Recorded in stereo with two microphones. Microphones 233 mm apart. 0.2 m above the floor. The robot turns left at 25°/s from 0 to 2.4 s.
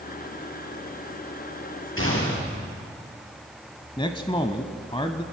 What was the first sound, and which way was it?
A gunshot, 65° left (ahead or behind).